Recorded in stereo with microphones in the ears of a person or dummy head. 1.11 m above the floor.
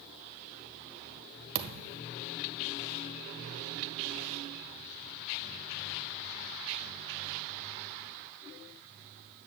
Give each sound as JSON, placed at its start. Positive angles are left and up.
{"t": 1.6, "sound": "a thud", "side_deg": -55, "distance_m": 1.3}